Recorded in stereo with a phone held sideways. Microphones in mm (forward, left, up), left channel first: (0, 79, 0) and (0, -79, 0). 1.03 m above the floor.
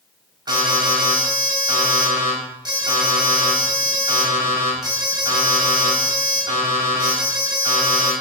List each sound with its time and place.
0.5 s an alarm: 30° right (ahead or behind), 5.5 m